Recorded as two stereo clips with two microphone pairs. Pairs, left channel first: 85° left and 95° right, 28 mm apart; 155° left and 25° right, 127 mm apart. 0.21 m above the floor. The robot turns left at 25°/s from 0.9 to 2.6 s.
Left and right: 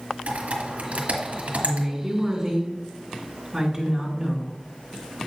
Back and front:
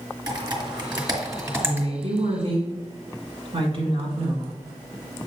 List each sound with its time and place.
0.3 s typing on a keyboard: 75° right, 1.7 m; by 1.9 s 100° right, 1.7 m
1.6 s a woman speaking: 15° right, 2.5 m; by 4.5 s 35° right, 2.5 m